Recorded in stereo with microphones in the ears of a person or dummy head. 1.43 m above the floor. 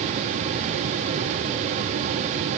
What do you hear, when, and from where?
Only background noise.